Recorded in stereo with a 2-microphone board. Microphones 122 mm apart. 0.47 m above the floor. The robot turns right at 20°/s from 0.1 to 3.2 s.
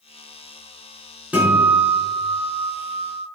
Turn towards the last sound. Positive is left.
turn(degrees=-130)